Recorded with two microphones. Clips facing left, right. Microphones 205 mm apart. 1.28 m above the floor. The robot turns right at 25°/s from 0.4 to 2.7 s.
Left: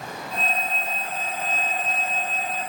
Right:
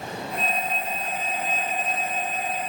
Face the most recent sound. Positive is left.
No sound to turn to.